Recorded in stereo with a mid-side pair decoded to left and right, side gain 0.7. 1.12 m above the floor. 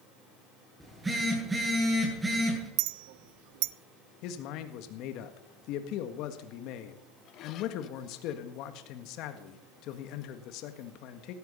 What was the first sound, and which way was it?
A phone buzzing, 10° right.